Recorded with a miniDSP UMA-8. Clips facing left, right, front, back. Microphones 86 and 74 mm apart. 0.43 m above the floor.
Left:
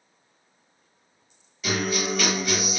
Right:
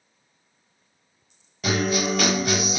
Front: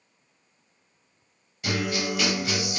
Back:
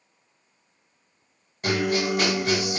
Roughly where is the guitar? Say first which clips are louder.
Right 3 dB, back 4 dB; behind right.